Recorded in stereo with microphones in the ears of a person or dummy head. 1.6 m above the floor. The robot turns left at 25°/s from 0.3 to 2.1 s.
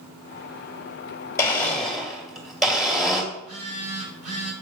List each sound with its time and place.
1.4 s a blender: 20° left (ahead or behind), 2.5 m; by 3.2 s centre (ahead or behind), 2.5 m
3.3 s a phone buzzing: 40° right (ahead or behind), 1.7 m